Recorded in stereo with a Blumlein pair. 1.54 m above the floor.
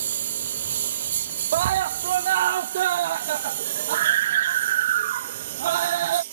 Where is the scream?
55° right.